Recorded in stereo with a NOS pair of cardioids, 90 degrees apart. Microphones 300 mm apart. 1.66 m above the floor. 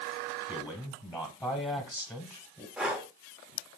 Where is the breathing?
5° right, 0.8 m.